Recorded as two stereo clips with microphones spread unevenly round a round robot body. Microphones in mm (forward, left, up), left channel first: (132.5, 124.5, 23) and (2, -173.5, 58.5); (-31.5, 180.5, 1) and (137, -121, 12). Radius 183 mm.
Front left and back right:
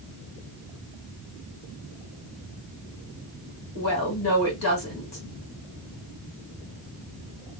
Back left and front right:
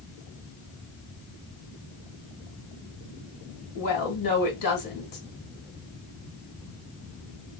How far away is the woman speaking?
About 2 m.